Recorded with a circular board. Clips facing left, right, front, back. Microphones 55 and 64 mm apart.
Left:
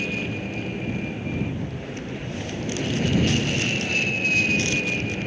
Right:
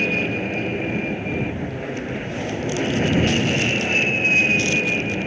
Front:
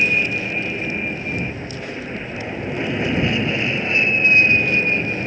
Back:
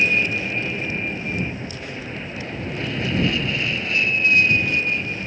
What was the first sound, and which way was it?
An aircraft, 80° right.